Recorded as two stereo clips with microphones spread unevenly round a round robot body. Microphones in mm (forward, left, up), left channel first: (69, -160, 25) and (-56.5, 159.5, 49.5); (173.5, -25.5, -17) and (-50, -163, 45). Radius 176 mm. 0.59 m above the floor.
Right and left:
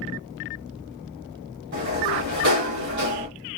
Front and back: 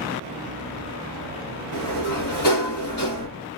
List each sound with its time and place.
1.7 s a sliding door: 55° left, 2.5 m